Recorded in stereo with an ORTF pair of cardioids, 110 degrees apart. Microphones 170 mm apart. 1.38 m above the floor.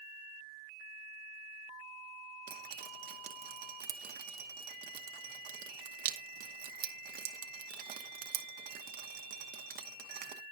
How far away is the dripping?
About 1.0 m.